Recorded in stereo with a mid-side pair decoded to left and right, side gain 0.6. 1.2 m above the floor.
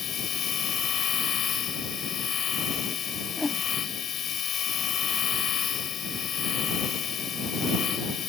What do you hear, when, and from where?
0.0 s a machine running: 50° left
3.4 s a whoosh: 15° left